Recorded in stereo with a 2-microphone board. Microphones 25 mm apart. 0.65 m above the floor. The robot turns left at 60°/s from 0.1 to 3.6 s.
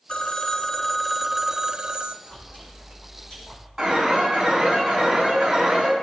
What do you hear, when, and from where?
0.1 s a phone ringing: 60° left, 0.8 m; by 2.1 s 60° right, 0.8 m
2.2 s chewing: 100° left, 6.5 m; by 3.7 s 20° left, 6.5 m
3.8 s an alarm: 10° right (ahead or behind), 6 m